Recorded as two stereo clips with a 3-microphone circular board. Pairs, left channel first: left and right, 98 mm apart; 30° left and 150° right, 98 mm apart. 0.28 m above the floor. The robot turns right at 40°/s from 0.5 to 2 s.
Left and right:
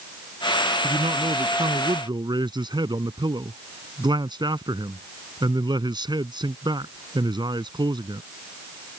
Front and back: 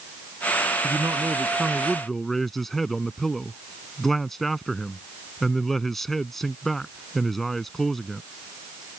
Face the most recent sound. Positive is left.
turn(degrees=-55)